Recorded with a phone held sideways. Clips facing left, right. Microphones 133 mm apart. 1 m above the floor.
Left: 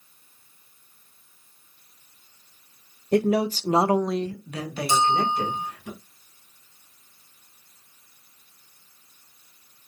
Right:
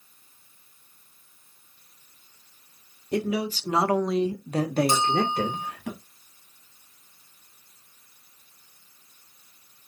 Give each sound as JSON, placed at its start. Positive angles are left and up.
{"t": 3.1, "sound": "a man speaking", "side_deg": 60, "distance_m": 0.9}
{"t": 4.9, "sound": "a bell", "side_deg": -55, "distance_m": 4.5}